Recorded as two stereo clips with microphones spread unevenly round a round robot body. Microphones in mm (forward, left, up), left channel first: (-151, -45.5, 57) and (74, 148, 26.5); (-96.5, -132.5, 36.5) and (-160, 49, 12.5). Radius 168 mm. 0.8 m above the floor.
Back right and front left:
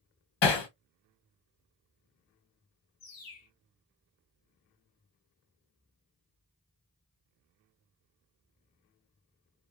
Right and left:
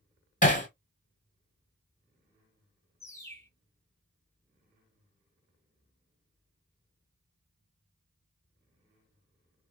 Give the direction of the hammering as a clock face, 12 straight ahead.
4 o'clock.